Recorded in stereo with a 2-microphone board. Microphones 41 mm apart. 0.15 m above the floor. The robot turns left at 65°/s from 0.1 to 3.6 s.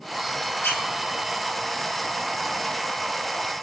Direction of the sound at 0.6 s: 75° left (ahead or behind).